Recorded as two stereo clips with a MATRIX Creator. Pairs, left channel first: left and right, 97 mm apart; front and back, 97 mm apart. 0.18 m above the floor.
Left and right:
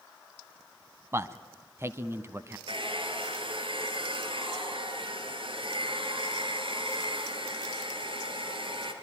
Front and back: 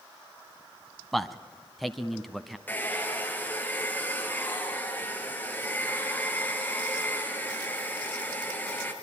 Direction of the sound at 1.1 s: 90° right.